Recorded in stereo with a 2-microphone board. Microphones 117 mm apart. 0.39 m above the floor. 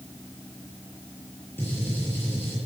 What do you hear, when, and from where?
1.6 s a gunshot: 15° left (ahead or behind), 6 m